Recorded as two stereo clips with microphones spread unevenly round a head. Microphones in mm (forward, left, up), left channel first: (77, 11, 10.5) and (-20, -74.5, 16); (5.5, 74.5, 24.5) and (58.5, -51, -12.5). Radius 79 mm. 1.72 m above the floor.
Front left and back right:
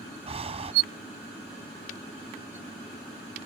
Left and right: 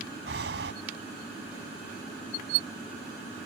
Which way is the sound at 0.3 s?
95° right.